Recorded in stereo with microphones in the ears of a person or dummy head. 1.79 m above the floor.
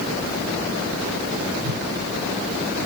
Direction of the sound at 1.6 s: 45° right (ahead or behind).